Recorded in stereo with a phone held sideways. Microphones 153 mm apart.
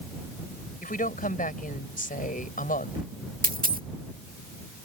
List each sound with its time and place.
0.8 s a woman speaking: 65° left (ahead or behind)
3.4 s a dropped coin: 65° right (ahead or behind)